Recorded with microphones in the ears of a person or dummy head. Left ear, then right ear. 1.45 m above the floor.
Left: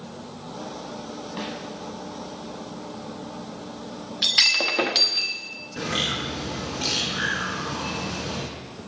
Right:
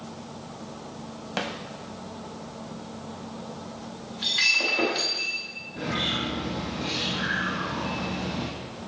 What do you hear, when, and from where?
1.4 s a snare drum: 50° right (ahead or behind), 0.8 m
4.2 s breaking glass: 35° left (ahead or behind), 1.1 m
5.8 s a bird: 75° left (ahead or behind), 1.7 m